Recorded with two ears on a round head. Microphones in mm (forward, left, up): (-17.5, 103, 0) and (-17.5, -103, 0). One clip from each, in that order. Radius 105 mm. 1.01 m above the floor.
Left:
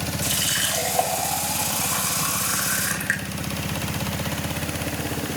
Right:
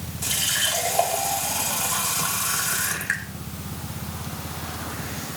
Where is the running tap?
10° left (ahead or behind), 2 m.